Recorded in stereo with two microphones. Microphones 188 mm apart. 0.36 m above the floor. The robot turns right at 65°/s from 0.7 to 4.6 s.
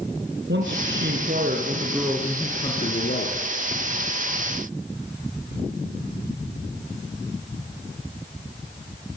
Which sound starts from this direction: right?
A man speaking, at 0.5 s.